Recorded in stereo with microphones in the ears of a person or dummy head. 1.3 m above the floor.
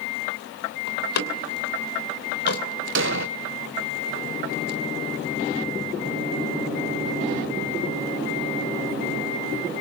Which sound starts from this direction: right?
An explosion, at 3.0 s.